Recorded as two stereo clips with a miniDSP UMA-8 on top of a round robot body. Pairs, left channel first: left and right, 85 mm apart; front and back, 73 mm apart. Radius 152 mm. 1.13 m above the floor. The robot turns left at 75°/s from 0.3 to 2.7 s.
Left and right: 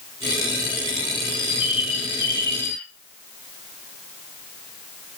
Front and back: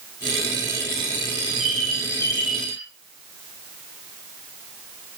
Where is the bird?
115° left, 1.8 m; by 2.9 s 15° left, 1.8 m.